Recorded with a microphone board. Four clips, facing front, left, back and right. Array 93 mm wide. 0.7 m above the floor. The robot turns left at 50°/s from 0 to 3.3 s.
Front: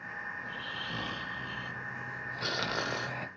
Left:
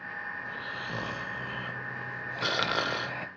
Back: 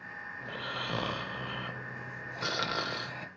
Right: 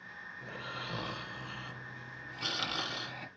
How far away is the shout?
I don't hear a shout.